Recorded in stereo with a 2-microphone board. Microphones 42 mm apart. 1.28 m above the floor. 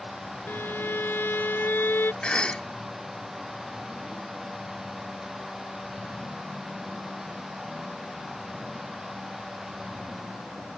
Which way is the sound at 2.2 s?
30° left (ahead or behind).